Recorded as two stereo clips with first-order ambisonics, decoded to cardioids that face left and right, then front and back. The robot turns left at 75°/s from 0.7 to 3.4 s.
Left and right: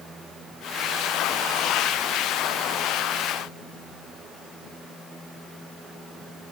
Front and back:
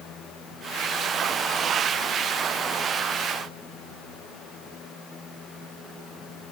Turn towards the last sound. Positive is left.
No sound to turn to.